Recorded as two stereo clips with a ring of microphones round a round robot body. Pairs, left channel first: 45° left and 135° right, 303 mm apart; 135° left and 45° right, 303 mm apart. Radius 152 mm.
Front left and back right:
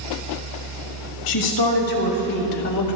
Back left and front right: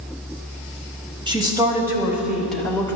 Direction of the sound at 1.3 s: 30° left.